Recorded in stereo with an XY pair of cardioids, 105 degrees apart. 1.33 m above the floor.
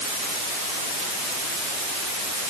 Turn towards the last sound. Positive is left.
No sound to turn to.